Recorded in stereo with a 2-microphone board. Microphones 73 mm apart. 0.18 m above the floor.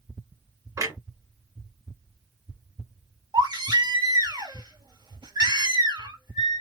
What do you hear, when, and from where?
0.8 s a clunk: 50° right (ahead or behind), 1.3 m
3.3 s a baby crying: 75° right (ahead or behind), 1.6 m